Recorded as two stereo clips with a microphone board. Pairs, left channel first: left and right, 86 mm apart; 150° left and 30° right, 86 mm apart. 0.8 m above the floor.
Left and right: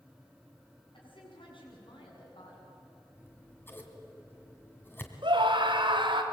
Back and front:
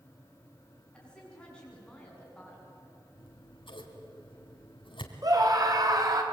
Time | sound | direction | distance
0.9 | a woman speaking | 75° left | 7 m
3.1 | scissors | 155° left | 2.5 m
5.2 | a scream | 70° right | 3 m